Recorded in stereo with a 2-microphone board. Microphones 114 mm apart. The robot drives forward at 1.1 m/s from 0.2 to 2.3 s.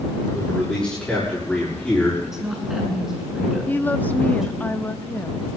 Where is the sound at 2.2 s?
5° right (ahead or behind), 7 m.